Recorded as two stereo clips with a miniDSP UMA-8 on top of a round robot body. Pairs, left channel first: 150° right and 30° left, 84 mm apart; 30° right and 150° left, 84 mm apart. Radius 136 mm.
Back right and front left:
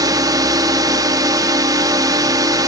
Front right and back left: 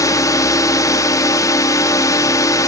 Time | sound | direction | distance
0.0 | a drone | 10° left | ?